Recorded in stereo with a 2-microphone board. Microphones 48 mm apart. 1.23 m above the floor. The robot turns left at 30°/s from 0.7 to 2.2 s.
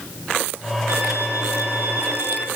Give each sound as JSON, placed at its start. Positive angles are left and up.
{"t": 0.9, "sound": "a violin", "azimuth_deg": -90, "distance_m": 4.0}